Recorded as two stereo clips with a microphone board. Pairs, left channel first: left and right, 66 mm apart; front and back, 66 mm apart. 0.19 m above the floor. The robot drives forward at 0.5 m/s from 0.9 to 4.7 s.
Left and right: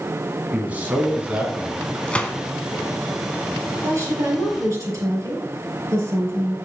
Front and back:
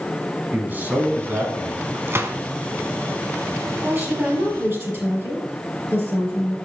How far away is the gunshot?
About 0.7 m.